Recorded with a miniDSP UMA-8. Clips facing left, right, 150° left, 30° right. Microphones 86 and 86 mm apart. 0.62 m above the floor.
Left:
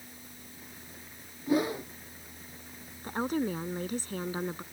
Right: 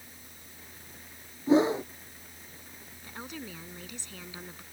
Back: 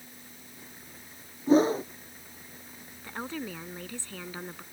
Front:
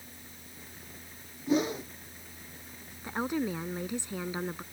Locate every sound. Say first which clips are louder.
1.5 s a whoosh: right 5 dB, back 7 dB; 155° right
3.0 s a woman speaking: left 12 dB, front 5 dB; 45° left